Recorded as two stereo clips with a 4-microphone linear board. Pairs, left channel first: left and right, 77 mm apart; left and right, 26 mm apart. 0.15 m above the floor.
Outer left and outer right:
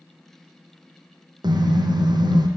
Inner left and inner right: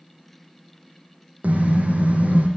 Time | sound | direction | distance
1.4 | a car horn | 65° right (ahead or behind) | 3.5 m